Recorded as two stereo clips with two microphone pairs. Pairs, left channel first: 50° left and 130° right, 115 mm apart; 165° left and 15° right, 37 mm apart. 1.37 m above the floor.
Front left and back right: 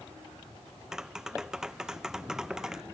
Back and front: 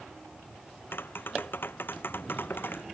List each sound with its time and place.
0.9 s tapping: 145° left